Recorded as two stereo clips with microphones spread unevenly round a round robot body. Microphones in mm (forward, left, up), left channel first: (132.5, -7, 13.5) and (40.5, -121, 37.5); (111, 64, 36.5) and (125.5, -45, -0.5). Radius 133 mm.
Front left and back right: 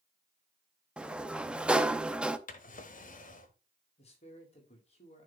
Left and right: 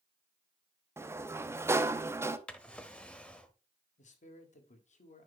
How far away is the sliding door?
About 0.8 m.